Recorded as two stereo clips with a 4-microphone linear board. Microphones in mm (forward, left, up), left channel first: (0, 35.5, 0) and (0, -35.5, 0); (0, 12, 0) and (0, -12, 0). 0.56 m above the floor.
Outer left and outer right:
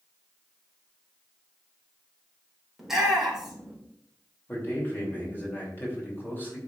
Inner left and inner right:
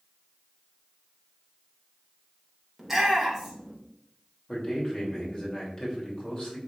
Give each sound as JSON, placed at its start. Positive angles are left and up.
{"t": 2.8, "sound": "a shout", "side_deg": -5, "distance_m": 2.0}
{"t": 4.5, "sound": "a man speaking", "side_deg": 30, "distance_m": 2.5}